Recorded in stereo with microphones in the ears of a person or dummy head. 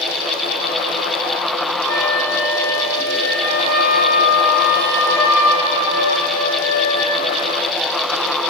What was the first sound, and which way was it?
A flute, 20° right (ahead or behind).